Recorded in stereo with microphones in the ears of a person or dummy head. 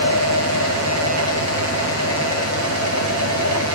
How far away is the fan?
About 1.6 m.